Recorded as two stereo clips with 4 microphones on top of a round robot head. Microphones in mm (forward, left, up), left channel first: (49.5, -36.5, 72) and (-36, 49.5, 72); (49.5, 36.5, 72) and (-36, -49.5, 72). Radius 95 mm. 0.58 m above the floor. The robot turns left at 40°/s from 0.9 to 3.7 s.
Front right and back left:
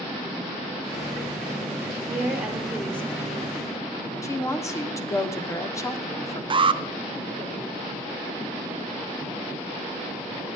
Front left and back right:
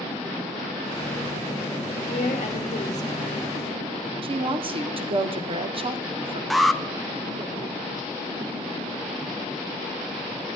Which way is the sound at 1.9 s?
75° left.